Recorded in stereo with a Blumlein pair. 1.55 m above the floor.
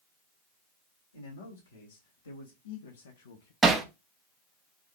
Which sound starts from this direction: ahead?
Hammering, at 3.6 s.